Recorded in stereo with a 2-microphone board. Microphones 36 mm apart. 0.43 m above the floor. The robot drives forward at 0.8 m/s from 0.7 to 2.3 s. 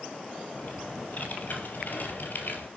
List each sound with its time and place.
0.5 s typing on a keyboard: 45° left (ahead or behind), 4.5 m; by 2.7 s 60° left (ahead or behind), 3.5 m